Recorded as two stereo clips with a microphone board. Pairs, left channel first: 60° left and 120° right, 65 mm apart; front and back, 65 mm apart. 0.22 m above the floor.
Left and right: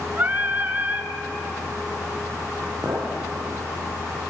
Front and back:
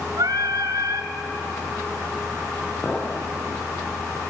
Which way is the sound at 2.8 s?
85° right.